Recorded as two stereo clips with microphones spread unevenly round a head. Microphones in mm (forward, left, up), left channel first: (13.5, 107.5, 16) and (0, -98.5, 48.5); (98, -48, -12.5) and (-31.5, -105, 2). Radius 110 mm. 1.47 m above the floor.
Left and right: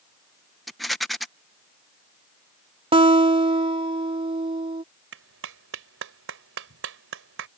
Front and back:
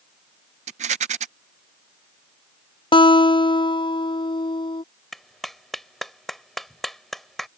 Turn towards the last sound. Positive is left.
turn(degrees=-65)